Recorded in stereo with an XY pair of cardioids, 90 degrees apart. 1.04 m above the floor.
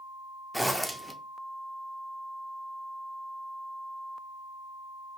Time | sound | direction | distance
0.5 | a zipper | 5° left | 0.7 m